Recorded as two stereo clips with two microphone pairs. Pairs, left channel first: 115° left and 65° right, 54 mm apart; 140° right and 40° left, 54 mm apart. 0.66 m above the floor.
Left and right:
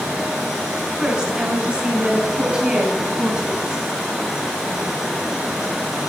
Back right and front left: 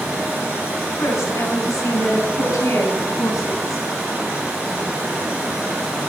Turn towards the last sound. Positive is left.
turn(degrees=-140)